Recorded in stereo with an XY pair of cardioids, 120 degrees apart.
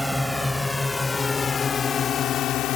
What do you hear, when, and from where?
0.0 s a drone: straight ahead; by 2.8 s 75° left